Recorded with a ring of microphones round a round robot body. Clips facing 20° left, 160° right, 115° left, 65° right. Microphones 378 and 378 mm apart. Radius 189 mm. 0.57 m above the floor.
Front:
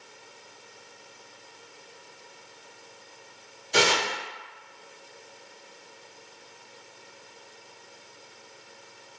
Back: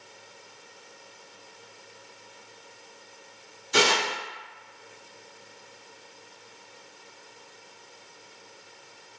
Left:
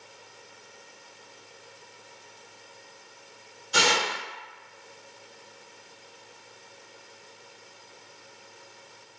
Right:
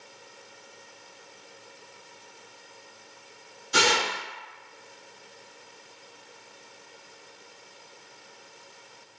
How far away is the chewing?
No chewing in this recording.